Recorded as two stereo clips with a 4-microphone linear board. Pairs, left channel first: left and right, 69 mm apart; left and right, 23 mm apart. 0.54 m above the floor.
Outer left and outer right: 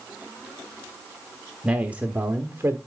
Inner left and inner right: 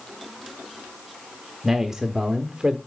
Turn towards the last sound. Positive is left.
turn(degrees=-40)  # may be behind; listen again after turning